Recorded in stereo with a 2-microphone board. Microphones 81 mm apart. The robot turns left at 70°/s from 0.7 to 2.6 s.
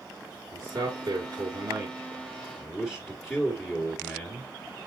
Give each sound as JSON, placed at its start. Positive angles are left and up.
{"t": 0.5, "sound": "a man speaking", "azimuth_deg": -45, "distance_m": 2.5}